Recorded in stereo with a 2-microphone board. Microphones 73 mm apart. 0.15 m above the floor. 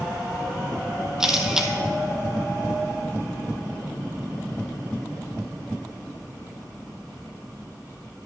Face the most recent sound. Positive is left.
turn(degrees=-10)  # may be behind; listen again after turning